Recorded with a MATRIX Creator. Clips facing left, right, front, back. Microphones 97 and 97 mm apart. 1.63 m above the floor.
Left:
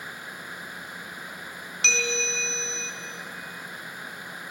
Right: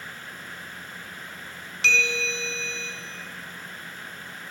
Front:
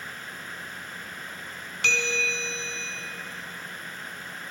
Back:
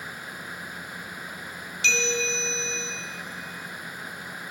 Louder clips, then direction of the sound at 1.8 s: Right 3 dB, back 1 dB; straight ahead.